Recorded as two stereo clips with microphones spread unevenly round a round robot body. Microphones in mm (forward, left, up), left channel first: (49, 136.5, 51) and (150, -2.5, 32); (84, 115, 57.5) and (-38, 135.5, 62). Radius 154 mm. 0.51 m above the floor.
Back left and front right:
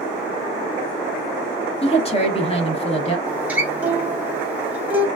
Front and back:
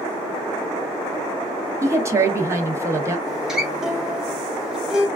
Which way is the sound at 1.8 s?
125° left.